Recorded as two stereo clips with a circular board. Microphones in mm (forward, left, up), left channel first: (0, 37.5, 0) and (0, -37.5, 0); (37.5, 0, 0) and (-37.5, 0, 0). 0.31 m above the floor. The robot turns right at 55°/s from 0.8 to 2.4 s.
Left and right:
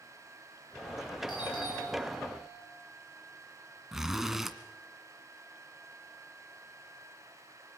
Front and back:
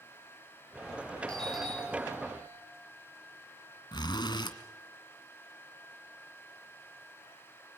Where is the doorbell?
75° left, 7 m; by 2.6 s 135° left, 7 m.